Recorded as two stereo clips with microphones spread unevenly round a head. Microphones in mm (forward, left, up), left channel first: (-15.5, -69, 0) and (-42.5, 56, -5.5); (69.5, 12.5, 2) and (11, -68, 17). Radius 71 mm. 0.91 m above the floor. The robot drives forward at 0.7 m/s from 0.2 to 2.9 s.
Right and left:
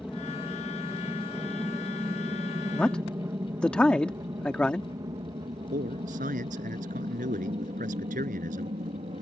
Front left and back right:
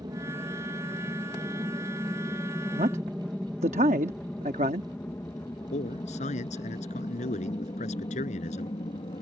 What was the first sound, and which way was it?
An aircraft, 170° right.